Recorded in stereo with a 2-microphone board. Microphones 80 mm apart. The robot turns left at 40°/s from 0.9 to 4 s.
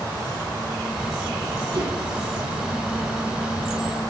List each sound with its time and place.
1.7 s a whoosh: 75° right (ahead or behind), 6.5 m; by 1.9 s 80° right, 6.5 m